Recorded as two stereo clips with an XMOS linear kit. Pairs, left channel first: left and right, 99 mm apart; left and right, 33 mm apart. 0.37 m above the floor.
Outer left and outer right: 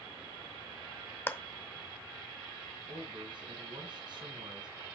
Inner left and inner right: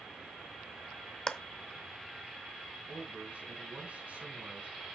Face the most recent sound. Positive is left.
turn(degrees=-55)  # may be behind; listen again after turning